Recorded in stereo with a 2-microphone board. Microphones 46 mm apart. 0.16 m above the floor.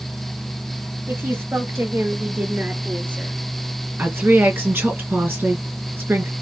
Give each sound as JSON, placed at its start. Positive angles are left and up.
{"t": 1.1, "sound": "a woman speaking", "side_deg": -60, "distance_m": 2.5}
{"t": 4.0, "sound": "a woman speaking", "side_deg": -55, "distance_m": 3.0}